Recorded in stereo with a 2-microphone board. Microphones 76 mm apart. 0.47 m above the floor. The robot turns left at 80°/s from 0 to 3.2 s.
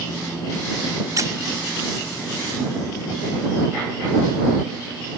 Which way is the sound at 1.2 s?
50° right (ahead or behind).